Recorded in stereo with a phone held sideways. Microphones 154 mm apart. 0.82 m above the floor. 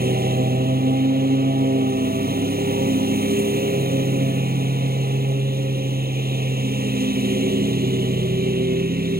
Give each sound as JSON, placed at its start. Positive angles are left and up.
{"t": 0.0, "sound": "a lawn mower", "side_deg": -85}